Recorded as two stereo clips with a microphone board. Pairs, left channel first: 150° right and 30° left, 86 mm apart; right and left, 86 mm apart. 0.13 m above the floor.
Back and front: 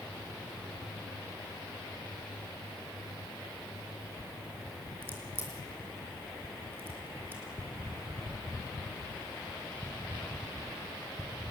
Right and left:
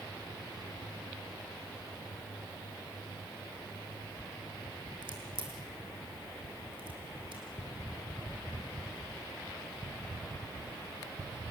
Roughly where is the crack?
Left.